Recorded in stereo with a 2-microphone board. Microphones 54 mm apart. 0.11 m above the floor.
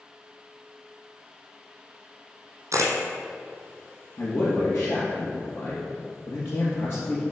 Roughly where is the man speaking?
Left.